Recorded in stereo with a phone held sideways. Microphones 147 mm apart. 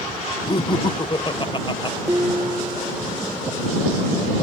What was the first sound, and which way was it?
Laughter, 35° left (ahead or behind).